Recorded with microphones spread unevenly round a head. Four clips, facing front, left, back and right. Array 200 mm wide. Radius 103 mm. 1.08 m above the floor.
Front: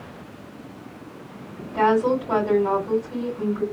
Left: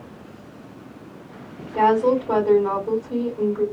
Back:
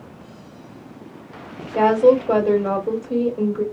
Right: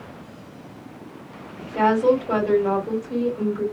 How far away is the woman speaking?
About 2.5 m.